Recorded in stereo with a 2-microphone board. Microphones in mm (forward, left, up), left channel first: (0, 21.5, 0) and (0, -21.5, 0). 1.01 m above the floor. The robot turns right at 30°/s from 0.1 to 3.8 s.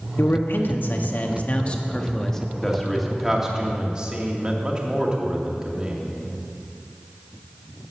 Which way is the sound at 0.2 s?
100° left.